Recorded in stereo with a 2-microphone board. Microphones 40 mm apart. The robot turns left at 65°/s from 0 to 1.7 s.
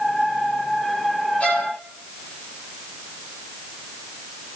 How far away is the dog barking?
No dog barking in this recording.